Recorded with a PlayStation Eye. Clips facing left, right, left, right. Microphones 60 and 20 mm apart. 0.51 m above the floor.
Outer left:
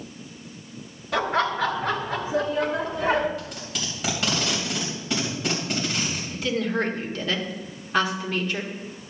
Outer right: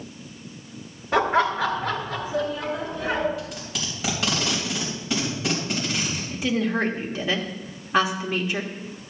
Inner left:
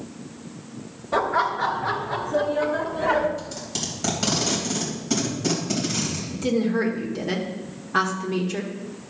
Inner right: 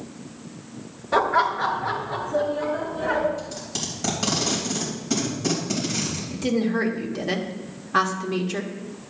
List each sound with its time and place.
1.1 s laughter: 30° right (ahead or behind), 1.3 m; by 3.3 s 55° left (ahead or behind), 2 m
3.4 s tape being pulled: centre (ahead or behind), 3 m
6.3 s a woman speaking: 15° right (ahead or behind), 1.4 m